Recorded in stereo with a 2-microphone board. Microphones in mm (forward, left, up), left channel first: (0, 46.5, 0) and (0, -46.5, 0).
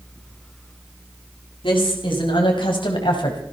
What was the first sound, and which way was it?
A woman speaking, 65° left (ahead or behind).